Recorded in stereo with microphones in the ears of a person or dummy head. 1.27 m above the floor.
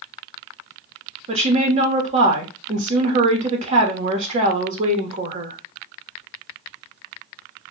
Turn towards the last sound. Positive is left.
turn(degrees=-40)  # may be behind; listen again after turning